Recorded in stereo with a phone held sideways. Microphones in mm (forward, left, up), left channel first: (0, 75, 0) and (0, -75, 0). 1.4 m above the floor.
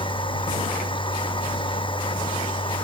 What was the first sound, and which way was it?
A machine running, 35° left (ahead or behind).